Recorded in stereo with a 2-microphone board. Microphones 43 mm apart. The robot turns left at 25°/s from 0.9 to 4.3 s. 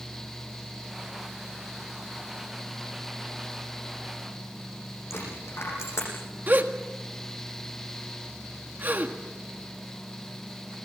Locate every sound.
5.1 s a dropped coin: 85° left, 9.5 m
6.5 s a gasp: 50° right (ahead or behind), 1.6 m